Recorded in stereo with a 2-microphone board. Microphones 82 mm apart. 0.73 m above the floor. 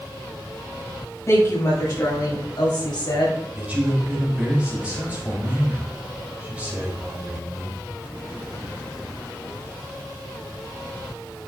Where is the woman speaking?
35° left (ahead or behind), 5 m; by 3.5 s 70° left (ahead or behind), 5 m.